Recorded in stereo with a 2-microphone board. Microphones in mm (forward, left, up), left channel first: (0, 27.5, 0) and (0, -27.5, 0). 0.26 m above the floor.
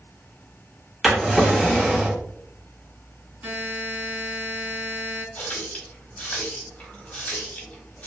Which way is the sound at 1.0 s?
5° right (ahead or behind).